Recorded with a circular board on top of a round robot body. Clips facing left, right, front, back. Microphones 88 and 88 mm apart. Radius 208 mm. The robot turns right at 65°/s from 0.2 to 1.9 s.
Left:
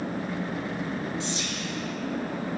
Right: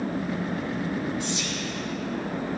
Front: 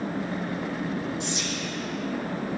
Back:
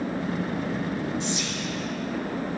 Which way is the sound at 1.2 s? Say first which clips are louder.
Right 2 dB, back 1 dB; 25° left.